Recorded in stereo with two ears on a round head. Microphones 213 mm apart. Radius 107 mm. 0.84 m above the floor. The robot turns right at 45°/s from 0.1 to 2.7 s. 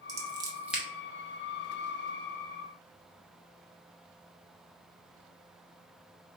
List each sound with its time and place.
0.1 s scissors: 30° right (ahead or behind), 0.9 m; by 0.8 s centre (ahead or behind), 0.9 m